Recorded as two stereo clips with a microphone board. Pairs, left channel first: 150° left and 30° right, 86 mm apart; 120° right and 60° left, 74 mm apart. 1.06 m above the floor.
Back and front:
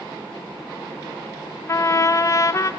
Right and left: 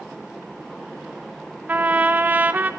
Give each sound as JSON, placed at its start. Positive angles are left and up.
{"t": 1.7, "sound": "a trumpet", "azimuth_deg": 120, "distance_m": 0.6}